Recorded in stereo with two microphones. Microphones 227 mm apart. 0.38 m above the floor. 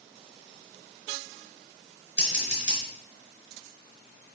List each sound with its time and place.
2.2 s scissors: 55° right (ahead or behind), 3 m